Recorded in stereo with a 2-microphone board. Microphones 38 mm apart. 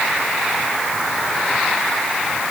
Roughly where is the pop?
No pop in this recording.